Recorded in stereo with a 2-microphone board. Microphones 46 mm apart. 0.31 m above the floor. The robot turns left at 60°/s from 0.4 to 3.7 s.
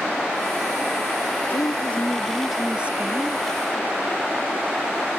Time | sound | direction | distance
1.5 | a woman speaking | 55° left | ?